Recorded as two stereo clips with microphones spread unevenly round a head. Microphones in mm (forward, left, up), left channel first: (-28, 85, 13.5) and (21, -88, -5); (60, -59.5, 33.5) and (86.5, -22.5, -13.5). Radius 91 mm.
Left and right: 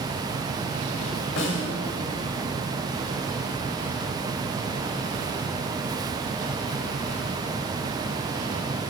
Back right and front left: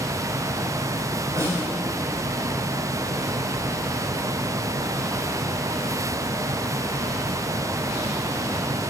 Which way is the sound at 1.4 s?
125° left.